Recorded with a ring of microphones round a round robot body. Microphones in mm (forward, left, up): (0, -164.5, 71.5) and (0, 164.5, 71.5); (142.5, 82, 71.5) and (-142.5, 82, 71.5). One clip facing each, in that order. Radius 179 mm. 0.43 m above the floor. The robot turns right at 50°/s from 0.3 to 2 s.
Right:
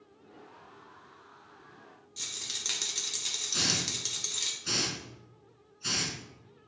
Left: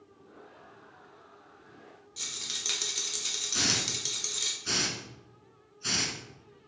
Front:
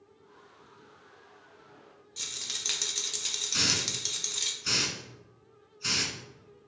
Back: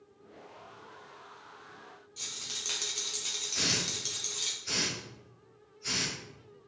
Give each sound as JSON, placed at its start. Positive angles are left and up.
{"t": 2.2, "sound": "a rattle", "azimuth_deg": -10, "distance_m": 0.7}
{"t": 3.5, "sound": "a hiss", "azimuth_deg": -5, "distance_m": 0.9}